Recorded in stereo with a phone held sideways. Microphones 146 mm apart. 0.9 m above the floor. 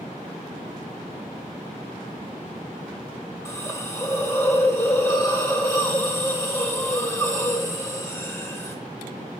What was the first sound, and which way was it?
A hiss, 20° left (ahead or behind).